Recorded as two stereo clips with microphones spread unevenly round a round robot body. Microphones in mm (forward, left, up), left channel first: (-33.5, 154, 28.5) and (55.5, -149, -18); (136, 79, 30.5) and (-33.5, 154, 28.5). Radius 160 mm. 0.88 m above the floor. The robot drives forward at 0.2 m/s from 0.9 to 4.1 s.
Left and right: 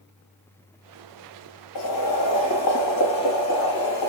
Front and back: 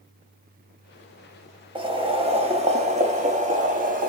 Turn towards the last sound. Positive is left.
turn(degrees=140)